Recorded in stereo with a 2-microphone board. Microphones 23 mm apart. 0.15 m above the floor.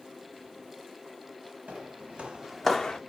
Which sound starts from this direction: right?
Footsteps, at 1.7 s.